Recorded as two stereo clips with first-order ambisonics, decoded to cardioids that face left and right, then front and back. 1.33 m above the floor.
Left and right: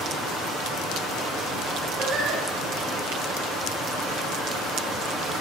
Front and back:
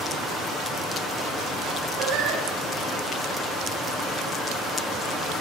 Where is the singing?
150° right, 6.5 m.